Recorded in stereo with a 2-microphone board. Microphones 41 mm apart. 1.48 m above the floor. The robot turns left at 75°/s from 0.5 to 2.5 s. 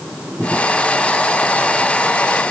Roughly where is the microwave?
No microwave in this recording.